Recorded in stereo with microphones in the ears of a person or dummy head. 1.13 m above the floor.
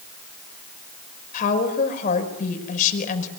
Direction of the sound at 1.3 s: 50° left (ahead or behind).